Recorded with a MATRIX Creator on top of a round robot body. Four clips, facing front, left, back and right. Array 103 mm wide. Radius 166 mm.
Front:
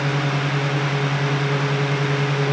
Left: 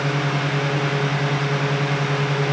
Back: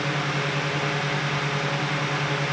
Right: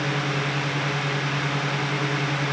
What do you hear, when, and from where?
Only background noise.